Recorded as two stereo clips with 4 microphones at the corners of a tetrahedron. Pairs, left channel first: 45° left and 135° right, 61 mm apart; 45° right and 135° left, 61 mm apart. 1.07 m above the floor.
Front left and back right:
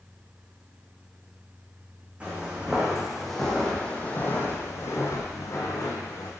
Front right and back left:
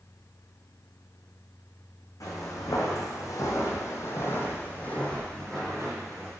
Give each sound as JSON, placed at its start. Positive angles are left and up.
{"t": 2.2, "sound": "footsteps", "azimuth_deg": -65, "distance_m": 2.5}